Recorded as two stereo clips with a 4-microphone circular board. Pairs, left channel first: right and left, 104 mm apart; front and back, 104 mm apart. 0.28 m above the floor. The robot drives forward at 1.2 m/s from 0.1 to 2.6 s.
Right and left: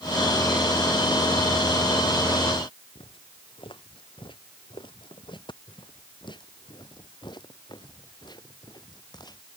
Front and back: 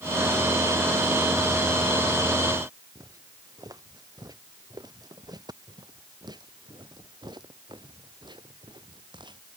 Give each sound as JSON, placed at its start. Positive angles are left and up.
{"t": 3.0, "sound": "footsteps", "azimuth_deg": -125}